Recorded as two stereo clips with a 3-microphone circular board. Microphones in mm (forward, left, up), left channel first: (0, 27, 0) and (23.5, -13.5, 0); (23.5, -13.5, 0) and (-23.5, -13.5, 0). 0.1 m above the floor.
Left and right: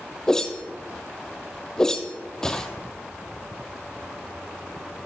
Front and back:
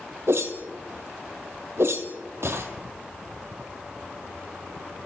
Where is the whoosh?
165° right, 1.3 m.